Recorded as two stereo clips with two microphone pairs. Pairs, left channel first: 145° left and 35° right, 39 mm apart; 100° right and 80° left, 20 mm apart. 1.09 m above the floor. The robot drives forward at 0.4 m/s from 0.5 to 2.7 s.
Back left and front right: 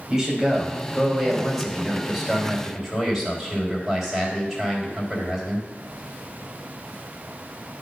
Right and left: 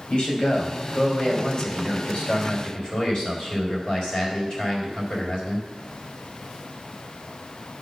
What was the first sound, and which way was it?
A man speaking, 110° right.